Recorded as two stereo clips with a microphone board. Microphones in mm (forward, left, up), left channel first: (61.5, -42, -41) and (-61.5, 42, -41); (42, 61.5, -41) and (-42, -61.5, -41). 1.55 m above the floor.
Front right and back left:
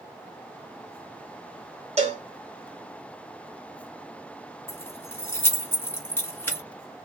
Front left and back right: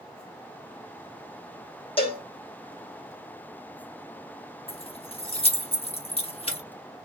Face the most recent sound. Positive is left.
turn(degrees=35)